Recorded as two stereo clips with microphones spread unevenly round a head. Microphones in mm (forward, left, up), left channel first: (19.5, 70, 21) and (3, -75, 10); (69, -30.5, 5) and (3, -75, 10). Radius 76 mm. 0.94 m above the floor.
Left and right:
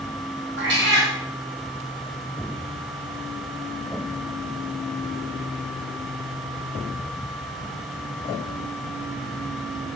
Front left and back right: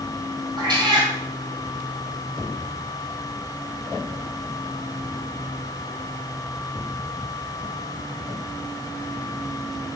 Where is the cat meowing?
115° right, 3 m.